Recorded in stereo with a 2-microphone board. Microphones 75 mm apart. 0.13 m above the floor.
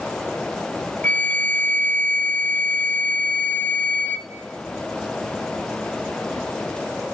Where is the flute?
20° left (ahead or behind), 1.0 m.